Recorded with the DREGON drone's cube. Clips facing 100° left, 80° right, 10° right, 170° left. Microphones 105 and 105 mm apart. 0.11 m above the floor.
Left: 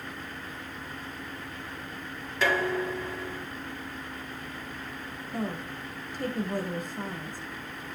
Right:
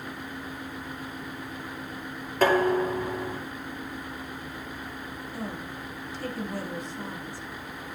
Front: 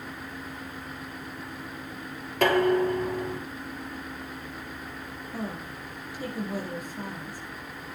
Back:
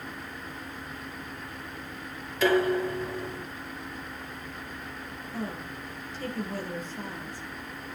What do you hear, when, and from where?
2.4 s dishes clattering: 40° right, 3 m
5.3 s a woman speaking: 65° left, 5 m